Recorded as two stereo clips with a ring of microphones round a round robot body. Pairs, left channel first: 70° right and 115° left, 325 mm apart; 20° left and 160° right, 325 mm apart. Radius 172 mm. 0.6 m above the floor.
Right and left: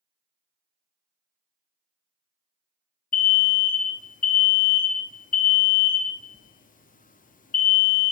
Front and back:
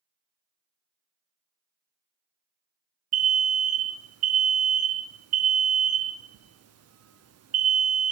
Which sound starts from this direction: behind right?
An alarm, at 3.1 s.